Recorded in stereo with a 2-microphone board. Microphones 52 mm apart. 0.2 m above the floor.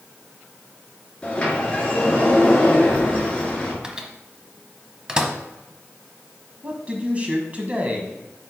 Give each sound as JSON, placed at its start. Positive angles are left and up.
{"t": 1.2, "sound": "a sliding door", "side_deg": 20, "distance_m": 2.5}
{"t": 3.8, "sound": "a microwave", "side_deg": -15, "distance_m": 0.8}
{"t": 6.6, "sound": "a man speaking", "side_deg": -30, "distance_m": 1.0}